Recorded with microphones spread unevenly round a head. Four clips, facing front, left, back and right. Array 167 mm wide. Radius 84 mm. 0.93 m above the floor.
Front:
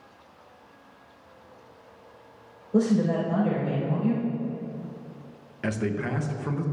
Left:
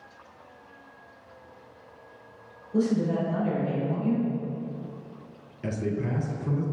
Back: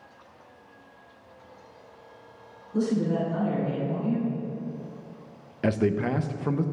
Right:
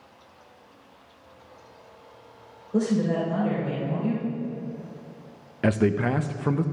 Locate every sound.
2.7 s a woman speaking: 20° right, 3.5 m
5.6 s a man speaking: 125° right, 0.5 m